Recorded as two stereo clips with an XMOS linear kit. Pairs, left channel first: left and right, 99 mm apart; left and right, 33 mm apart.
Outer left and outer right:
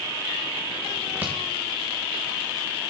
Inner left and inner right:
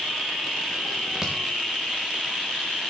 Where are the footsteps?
20° right (ahead or behind), 2.5 m.